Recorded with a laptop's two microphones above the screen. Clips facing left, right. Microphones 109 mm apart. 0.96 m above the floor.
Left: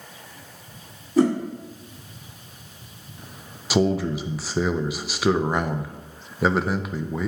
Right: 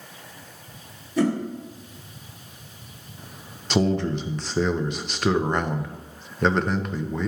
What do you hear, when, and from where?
1.2 s a whoosh: 45° left (ahead or behind), 2.5 m
3.7 s a man speaking: 5° left (ahead or behind), 0.5 m